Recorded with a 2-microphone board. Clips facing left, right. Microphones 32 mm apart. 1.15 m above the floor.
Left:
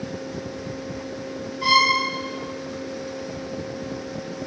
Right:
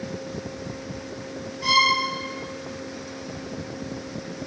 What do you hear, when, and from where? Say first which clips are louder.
1.6 s a violin: left 2 dB; 65° left (ahead or behind), 3.5 m